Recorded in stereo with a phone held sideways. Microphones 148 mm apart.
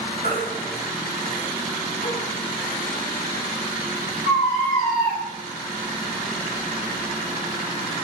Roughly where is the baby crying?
Left.